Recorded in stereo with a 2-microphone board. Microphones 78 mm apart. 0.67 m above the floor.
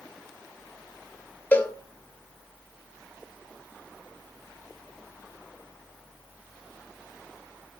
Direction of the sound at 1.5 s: 25° left (ahead or behind).